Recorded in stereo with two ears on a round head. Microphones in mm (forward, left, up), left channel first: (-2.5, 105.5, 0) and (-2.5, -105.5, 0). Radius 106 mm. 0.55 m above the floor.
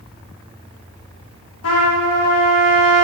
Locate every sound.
1.6 s a trumpet: 65° left (ahead or behind), 1.0 m